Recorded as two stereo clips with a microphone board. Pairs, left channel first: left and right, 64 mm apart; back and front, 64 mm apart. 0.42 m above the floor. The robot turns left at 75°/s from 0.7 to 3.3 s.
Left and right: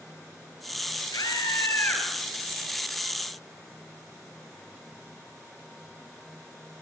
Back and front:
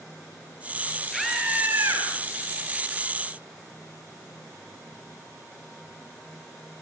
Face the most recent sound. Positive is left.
turn(degrees=-65)